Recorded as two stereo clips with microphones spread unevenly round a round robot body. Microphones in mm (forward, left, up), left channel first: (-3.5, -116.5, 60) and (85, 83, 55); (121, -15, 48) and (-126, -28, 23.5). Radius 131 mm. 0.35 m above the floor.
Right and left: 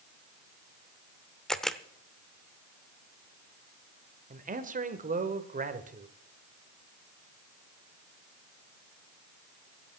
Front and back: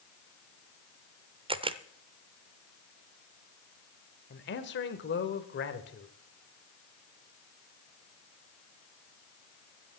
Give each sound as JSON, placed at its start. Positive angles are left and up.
{"t": 1.5, "sound": "a camera shutter", "azimuth_deg": 160, "distance_m": 0.7}
{"t": 4.3, "sound": "a man speaking", "azimuth_deg": 35, "distance_m": 1.4}